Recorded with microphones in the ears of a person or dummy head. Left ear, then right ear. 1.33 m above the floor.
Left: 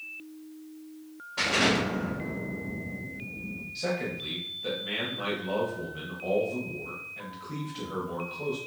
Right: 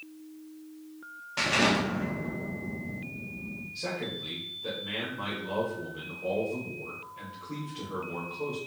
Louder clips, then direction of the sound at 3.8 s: Left 3 dB; 10° left (ahead or behind).